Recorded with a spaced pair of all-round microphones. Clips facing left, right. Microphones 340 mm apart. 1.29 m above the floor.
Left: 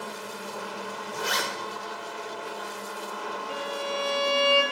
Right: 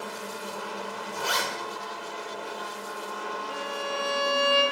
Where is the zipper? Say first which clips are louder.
Left 1 dB; 25° left (ahead or behind), 1.0 m.